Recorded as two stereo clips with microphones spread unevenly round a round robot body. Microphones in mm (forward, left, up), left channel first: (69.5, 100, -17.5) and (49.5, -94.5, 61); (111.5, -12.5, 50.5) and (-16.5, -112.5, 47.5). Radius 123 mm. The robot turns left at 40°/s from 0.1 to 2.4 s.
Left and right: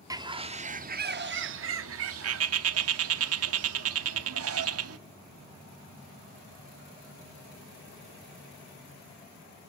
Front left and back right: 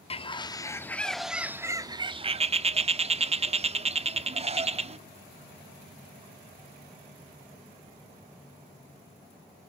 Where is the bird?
10° right, 0.9 m; by 5.0 s 100° right, 0.9 m.